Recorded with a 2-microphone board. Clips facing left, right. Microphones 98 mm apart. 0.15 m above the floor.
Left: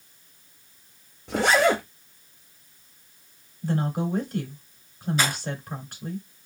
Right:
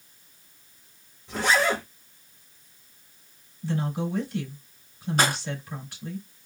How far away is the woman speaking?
About 2.5 m.